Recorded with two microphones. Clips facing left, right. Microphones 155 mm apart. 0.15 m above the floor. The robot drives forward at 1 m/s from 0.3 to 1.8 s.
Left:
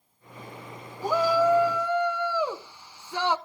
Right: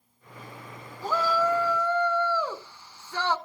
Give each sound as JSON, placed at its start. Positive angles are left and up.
{"t": 1.0, "sound": "a shout", "side_deg": 15, "distance_m": 1.0}